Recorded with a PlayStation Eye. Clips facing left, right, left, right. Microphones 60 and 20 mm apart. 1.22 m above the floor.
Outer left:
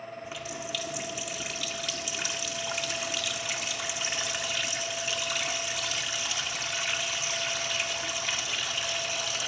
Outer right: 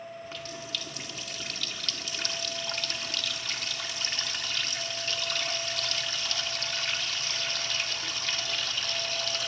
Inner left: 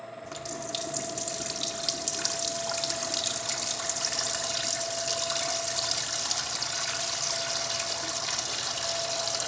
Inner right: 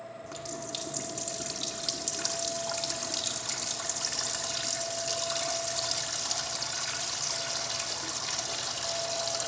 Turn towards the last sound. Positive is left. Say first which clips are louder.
# outer left 2 dB, inner left 3 dB
turn(degrees=10)  # may be behind; listen again after turning